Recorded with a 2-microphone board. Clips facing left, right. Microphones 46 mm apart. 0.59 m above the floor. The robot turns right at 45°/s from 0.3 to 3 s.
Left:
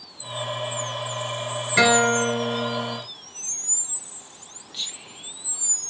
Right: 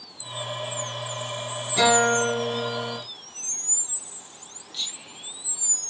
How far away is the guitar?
About 4.5 m.